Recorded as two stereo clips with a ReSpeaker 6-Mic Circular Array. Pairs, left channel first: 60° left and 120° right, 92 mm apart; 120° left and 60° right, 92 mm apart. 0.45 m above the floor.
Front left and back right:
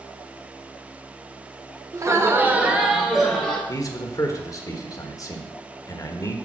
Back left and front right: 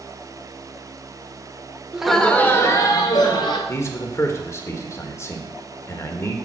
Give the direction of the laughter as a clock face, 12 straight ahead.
5 o'clock.